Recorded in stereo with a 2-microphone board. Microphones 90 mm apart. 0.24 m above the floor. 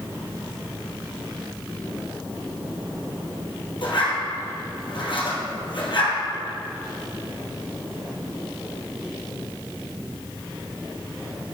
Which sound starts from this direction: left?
A zipper, at 3.8 s.